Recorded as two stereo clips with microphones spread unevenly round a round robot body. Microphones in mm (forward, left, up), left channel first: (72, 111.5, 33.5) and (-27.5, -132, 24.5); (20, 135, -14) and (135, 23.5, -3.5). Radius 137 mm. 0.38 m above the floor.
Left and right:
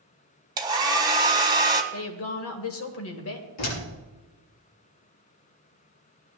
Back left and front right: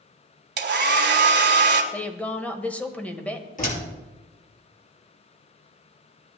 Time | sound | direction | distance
0.6 | a hair dryer | 35° right | 1.4 m
1.9 | a woman speaking | 60° left | 1.7 m
3.6 | a door slam | 100° left | 5.5 m